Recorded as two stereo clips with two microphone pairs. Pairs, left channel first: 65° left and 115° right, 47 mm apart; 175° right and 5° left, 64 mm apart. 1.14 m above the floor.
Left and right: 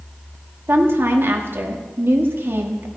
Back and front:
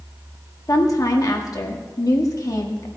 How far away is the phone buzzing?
I don't hear a phone buzzing.